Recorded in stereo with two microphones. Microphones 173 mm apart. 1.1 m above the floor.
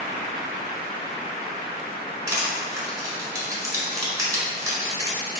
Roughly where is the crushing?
Centre.